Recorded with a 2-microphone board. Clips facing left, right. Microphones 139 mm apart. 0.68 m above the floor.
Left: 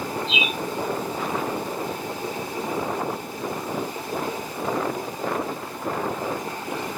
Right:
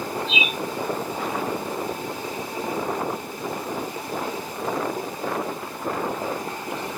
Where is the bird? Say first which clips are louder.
Even; 50° right (ahead or behind), 1.6 m.